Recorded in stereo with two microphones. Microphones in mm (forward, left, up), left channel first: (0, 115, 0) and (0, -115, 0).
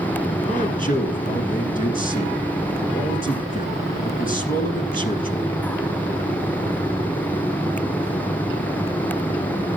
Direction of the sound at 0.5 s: 35° left (ahead or behind).